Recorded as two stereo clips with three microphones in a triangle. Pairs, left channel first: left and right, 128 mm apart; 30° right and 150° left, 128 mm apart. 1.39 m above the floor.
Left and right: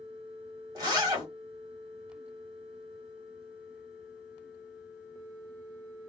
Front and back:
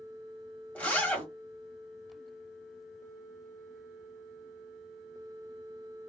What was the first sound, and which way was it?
A zipper, 100° right.